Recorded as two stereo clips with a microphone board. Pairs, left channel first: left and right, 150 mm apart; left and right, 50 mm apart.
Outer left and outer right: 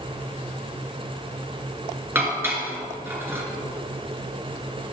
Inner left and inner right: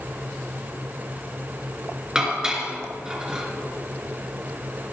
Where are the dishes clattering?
15° right (ahead or behind), 2.5 m.